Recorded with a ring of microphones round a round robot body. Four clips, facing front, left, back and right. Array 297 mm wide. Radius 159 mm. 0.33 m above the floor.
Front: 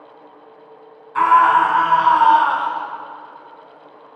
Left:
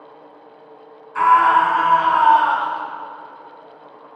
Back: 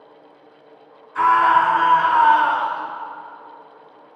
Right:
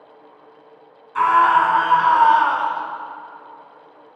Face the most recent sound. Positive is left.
turn(degrees=-45)